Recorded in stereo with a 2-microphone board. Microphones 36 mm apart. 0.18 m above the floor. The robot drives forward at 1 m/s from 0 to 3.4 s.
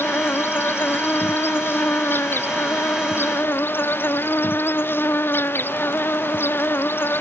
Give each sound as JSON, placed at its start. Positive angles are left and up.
{"t": 0.0, "sound": "an insect", "side_deg": 80}